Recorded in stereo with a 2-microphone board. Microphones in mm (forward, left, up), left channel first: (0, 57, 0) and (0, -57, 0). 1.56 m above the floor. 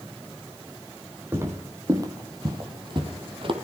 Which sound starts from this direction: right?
Footsteps, at 1.3 s.